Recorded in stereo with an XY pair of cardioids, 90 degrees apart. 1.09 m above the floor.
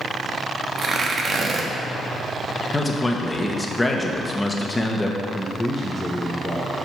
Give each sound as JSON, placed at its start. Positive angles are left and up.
{"t": 0.8, "sound": "tearing paper", "azimuth_deg": -50, "distance_m": 1.0}
{"t": 2.7, "sound": "a man speaking", "azimuth_deg": 15, "distance_m": 1.1}
{"t": 5.3, "sound": "a man speaking", "azimuth_deg": 10, "distance_m": 1.0}